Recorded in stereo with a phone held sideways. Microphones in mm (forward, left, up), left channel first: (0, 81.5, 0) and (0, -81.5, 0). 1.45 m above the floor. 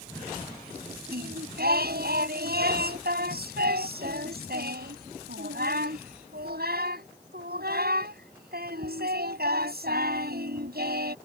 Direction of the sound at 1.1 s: 70° right (ahead or behind).